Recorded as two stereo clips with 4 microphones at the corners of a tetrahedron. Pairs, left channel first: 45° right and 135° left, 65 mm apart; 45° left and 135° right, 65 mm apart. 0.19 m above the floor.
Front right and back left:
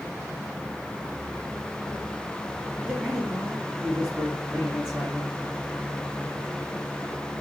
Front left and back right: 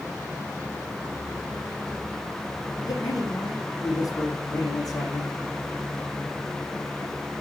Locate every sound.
2.9 s a man speaking: 55° left, 7 m